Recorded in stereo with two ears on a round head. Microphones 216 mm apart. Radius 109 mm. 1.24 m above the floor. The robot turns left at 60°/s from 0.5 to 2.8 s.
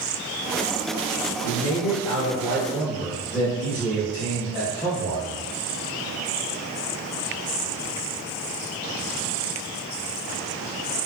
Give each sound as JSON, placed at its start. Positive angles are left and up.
{"t": 1.4, "sound": "a man speaking", "azimuth_deg": 95, "distance_m": 1.1}